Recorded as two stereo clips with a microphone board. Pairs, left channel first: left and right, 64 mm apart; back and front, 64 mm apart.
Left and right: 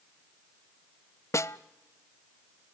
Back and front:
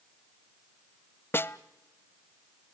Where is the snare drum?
130° left, 0.6 m.